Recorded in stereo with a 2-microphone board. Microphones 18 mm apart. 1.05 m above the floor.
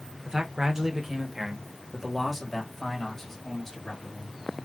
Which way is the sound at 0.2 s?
45° right (ahead or behind).